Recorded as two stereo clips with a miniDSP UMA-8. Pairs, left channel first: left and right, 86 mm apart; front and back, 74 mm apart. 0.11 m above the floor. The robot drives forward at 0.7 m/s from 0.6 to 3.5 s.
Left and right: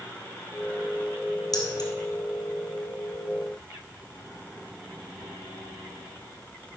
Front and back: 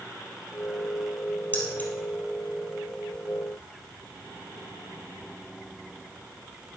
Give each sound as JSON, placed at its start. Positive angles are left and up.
{"t": 1.5, "sound": "keys jangling", "azimuth_deg": 60, "distance_m": 2.0}